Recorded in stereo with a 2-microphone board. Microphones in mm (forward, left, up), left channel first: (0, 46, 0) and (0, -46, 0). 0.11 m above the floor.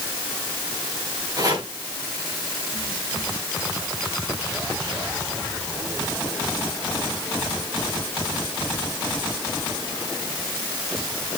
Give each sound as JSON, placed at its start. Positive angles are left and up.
{"t": 1.4, "sound": "chopping", "side_deg": -40, "distance_m": 9.5}